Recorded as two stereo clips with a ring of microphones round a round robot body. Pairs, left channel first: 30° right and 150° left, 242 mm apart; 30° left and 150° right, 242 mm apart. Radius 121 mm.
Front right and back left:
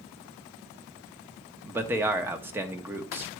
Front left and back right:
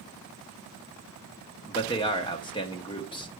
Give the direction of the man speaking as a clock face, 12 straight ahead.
9 o'clock.